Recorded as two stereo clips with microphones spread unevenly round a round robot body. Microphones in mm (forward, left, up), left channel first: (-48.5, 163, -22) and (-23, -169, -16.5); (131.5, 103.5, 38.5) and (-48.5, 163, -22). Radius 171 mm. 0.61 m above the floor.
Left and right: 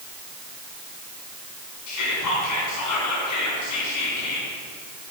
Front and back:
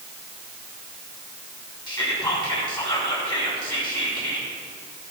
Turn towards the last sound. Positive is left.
turn(degrees=55)